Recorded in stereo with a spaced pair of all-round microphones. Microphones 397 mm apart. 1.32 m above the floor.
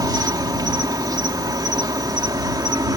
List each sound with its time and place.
0.0 s an insect: 10° right (ahead or behind)